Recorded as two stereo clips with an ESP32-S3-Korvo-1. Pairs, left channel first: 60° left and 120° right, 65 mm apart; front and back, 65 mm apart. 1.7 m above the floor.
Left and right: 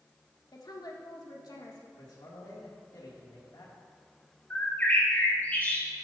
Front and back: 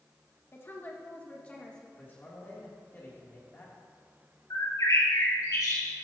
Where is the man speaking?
60° left, 3 m.